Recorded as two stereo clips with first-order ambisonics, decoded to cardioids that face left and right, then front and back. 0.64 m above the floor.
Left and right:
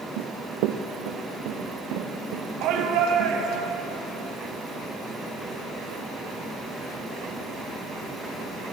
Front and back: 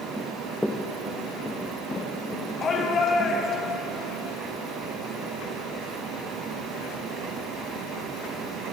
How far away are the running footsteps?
About 1.3 m.